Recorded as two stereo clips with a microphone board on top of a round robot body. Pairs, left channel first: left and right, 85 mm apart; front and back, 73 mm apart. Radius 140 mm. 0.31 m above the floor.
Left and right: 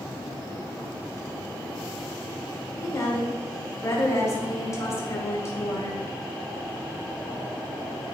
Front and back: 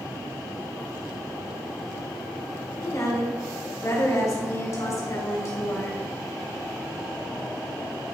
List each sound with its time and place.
2.8 s a woman speaking: 40° left, 2 m